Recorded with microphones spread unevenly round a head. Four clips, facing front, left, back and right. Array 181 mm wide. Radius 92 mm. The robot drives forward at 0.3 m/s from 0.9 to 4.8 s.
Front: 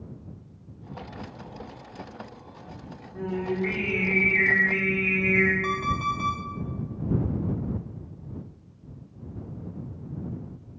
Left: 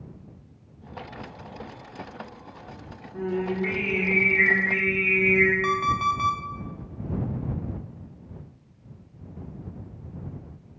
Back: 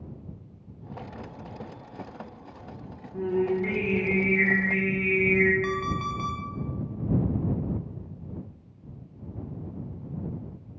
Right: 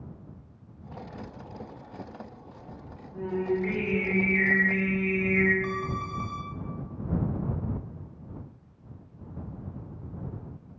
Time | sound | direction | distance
3.1 | singing | 150° left | 1.5 m
5.6 | an alarm clock | 85° left | 1.0 m